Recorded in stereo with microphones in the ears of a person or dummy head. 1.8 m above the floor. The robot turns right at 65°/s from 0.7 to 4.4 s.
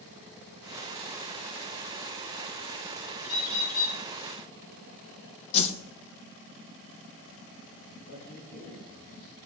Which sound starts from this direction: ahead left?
A bird, at 3.2 s.